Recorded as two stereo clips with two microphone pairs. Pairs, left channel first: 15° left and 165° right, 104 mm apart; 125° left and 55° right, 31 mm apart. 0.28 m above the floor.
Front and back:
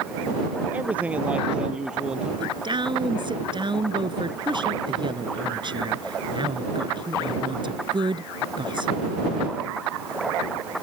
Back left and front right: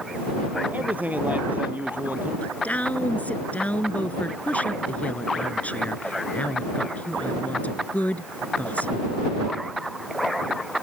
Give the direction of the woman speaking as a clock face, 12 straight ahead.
7 o'clock.